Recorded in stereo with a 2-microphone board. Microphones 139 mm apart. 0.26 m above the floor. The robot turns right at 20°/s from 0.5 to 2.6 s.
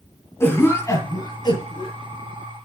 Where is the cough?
20° left (ahead or behind), 2.5 m; by 1.9 s 40° left (ahead or behind), 2.5 m.